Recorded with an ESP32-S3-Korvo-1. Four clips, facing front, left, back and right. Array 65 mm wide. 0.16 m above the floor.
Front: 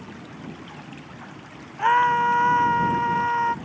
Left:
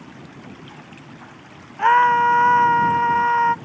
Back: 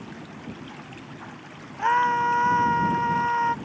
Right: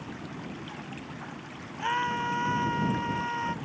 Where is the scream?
80° left; by 3.5 s 85° left.